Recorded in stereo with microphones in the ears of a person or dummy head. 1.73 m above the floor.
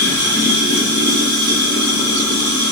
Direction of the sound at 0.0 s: 15° left (ahead or behind).